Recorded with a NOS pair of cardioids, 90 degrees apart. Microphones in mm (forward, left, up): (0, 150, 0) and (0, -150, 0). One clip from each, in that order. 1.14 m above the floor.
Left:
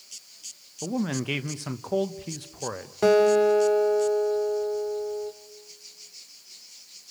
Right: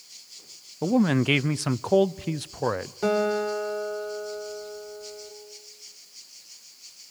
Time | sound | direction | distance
0.8 | a man speaking | 30° right | 0.6 m
3.0 | a guitar | 45° left | 2.5 m